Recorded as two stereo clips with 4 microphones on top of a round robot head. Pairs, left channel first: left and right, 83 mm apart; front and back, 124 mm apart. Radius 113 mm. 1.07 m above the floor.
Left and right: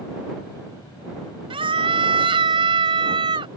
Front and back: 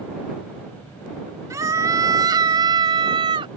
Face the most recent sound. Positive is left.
turn(degrees=-125)